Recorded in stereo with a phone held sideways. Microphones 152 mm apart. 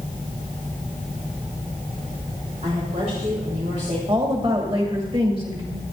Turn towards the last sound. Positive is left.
turn(degrees=-35)  # may be behind; listen again after turning